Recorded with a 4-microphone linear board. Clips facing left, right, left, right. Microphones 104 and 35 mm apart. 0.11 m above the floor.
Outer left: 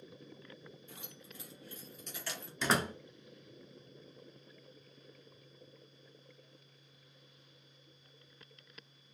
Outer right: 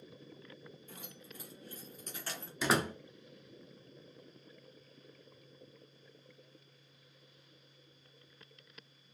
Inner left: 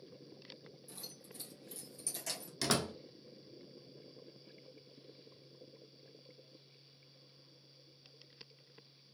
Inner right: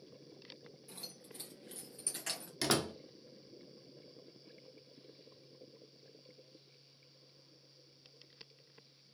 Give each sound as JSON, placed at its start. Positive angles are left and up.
{"t": 0.9, "sound": "keys jangling", "side_deg": -40, "distance_m": 2.0}
{"t": 2.6, "sound": "a door slam", "side_deg": -5, "distance_m": 0.8}